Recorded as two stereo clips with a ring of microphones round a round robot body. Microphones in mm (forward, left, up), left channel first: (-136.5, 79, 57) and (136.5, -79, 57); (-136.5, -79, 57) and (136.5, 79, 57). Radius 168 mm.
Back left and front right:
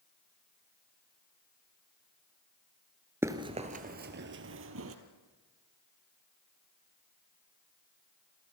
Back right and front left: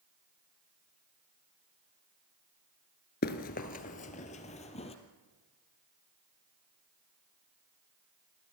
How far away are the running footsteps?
About 1.0 m.